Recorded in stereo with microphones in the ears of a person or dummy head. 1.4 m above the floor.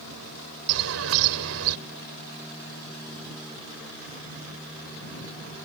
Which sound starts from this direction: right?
A bird, at 0.7 s.